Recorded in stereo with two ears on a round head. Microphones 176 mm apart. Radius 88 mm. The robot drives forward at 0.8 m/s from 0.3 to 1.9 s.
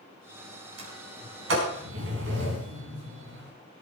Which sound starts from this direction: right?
A sliding door, at 0.8 s.